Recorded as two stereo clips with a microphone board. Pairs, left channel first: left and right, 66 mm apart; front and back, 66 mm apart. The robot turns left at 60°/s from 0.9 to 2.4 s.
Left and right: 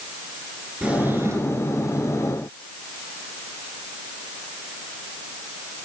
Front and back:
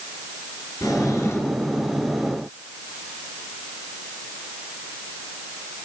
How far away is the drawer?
About 2.0 m.